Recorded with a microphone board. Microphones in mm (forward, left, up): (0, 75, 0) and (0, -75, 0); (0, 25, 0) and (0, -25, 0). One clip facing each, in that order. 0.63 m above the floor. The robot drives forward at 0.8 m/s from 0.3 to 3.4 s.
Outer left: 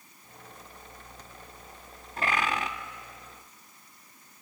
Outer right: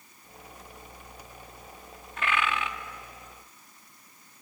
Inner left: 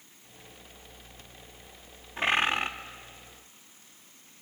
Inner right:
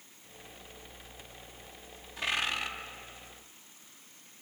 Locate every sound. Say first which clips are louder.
2.2 s a bird: even, inner left 6 dB; 35° left (ahead or behind), 0.9 m